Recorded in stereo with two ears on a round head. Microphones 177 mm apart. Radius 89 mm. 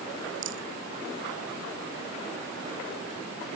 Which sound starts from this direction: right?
A rattle, at 0.4 s.